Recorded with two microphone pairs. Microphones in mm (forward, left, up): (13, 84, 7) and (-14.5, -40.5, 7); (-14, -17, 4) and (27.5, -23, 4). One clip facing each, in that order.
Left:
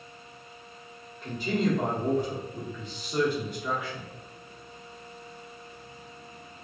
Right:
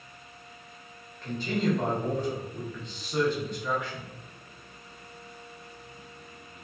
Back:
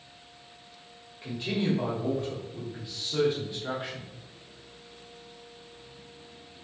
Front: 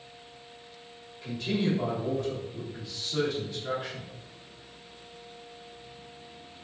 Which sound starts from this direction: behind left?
A man speaking, at 1.2 s.